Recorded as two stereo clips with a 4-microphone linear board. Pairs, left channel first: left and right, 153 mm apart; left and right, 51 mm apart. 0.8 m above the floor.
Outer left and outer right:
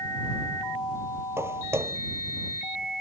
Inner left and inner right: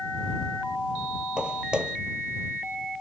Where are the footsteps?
15° right (ahead or behind).